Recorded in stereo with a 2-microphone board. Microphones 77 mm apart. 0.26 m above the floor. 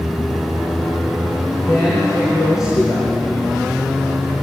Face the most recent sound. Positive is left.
turn(degrees=55)  # may be behind; listen again after turning